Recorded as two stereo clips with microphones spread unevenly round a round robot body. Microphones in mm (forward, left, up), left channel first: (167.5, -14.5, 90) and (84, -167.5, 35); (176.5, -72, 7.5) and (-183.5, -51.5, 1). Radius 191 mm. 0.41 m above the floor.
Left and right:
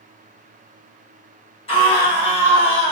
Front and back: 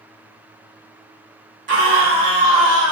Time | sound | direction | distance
1.7 | a scream | 130° left | 1.5 m